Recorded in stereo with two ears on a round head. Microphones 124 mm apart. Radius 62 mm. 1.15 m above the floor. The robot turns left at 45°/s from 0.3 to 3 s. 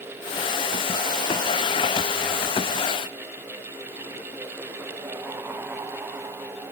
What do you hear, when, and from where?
Only background noise.